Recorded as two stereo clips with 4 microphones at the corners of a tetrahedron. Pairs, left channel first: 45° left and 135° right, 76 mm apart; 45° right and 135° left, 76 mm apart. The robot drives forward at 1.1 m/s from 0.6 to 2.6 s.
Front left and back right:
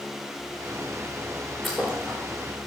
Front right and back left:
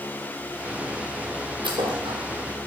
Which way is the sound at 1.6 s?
135° left.